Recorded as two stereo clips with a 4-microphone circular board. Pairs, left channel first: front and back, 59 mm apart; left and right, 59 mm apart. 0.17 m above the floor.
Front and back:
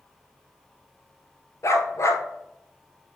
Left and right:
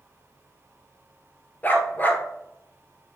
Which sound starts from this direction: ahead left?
A dog barking, at 1.6 s.